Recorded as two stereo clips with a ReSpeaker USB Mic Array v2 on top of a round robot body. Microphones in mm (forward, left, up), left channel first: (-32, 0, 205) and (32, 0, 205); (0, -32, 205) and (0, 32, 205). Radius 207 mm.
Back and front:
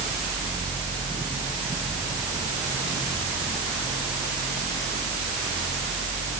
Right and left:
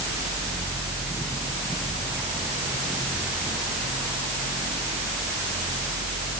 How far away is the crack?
No crack in this recording.